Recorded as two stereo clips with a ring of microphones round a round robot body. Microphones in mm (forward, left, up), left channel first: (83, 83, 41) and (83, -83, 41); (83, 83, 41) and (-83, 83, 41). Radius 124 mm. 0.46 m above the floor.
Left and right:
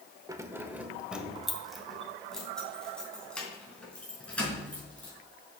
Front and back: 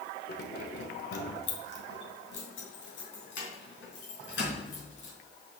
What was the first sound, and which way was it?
Keys jangling, 20° right.